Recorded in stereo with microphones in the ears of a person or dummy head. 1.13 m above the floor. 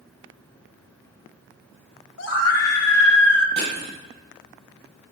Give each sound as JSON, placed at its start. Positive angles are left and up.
{"t": 2.2, "sound": "a scream", "side_deg": 75, "distance_m": 1.7}
{"t": 3.6, "sound": "crushing", "side_deg": -30, "distance_m": 5.5}